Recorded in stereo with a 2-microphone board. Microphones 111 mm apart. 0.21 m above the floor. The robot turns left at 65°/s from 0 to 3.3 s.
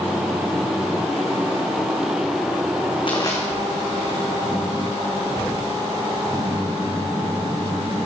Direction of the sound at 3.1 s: 45° left (ahead or behind).